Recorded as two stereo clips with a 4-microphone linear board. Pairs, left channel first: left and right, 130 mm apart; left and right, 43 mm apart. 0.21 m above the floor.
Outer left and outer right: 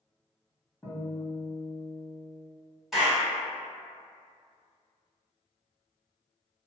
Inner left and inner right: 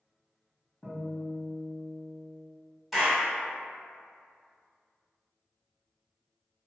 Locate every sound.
0.8 s a guitar: 10° left (ahead or behind), 1.5 m
2.9 s a clap: centre (ahead or behind), 1.1 m